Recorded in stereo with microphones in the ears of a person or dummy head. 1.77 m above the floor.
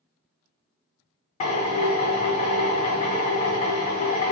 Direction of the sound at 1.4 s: 40° left (ahead or behind).